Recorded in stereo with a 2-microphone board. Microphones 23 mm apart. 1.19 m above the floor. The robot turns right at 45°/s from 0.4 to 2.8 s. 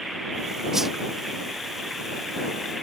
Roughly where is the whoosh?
Right.